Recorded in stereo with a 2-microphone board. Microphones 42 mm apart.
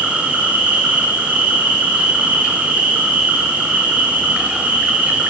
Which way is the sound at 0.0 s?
35° right (ahead or behind).